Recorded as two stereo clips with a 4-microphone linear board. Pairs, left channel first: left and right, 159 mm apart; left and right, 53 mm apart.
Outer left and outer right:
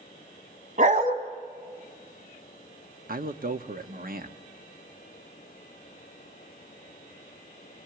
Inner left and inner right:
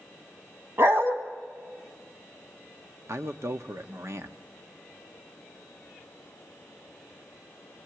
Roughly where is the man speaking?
Right.